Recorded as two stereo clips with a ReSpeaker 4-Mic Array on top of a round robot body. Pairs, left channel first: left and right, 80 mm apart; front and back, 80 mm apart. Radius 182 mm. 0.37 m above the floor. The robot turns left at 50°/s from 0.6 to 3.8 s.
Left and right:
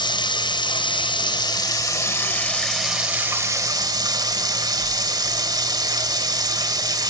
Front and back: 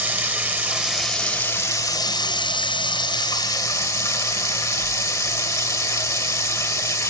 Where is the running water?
110° left, 2.5 m; by 7.1 s 50° right, 2.5 m.